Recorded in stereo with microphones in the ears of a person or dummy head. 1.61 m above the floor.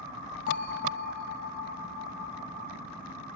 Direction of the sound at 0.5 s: 45° left (ahead or behind).